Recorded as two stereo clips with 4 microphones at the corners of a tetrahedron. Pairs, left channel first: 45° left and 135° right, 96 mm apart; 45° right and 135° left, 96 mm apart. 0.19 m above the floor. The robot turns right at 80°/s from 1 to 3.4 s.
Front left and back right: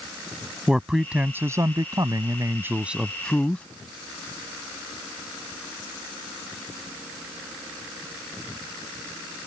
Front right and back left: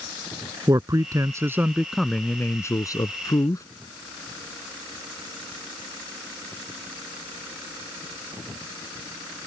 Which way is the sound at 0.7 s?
145° left.